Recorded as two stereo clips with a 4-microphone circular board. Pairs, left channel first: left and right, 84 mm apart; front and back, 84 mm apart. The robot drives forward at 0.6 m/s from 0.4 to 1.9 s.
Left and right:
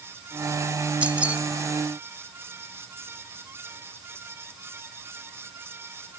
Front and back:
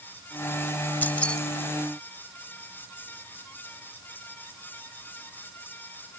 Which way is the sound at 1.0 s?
35° right.